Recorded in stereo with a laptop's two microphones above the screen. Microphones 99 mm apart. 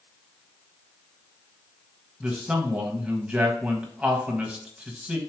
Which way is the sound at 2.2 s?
15° right (ahead or behind).